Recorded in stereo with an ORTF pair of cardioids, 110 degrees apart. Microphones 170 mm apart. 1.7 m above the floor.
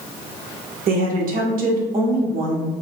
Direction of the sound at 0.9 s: 55° right.